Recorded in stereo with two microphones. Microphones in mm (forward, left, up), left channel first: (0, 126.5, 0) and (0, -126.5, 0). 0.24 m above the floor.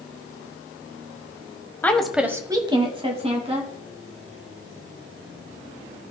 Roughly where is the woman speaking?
Centre.